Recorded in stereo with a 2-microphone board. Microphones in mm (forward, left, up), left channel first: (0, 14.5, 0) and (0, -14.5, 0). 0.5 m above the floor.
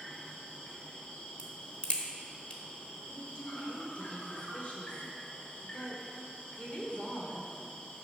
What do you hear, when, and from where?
0.0 s an insect: 50° left (ahead or behind), 1.5 m
1.4 s a crack: 45° left (ahead or behind), 1.0 m
3.1 s a woman speaking: 45° left (ahead or behind), 1.4 m